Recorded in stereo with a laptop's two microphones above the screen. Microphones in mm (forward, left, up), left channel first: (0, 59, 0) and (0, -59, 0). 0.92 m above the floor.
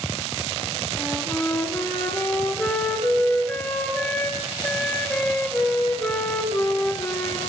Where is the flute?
15° left (ahead or behind), 3 m.